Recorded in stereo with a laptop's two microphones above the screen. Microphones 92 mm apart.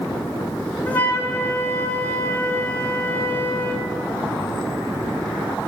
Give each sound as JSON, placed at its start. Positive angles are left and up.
{"t": 0.8, "sound": "a flute", "side_deg": 15, "distance_m": 6.0}